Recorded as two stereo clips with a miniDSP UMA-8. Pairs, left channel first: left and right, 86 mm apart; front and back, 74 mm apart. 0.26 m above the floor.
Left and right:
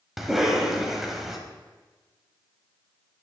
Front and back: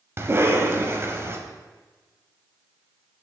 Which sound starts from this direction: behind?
A cough, at 0.2 s.